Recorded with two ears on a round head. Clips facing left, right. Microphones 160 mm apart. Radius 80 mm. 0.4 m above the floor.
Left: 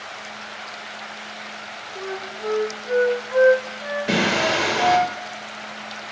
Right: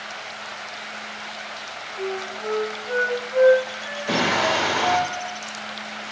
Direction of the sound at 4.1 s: 30° left (ahead or behind).